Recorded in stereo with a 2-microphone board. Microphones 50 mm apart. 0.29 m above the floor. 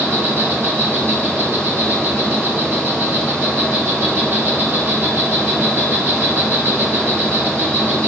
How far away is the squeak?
I don't hear a squeak.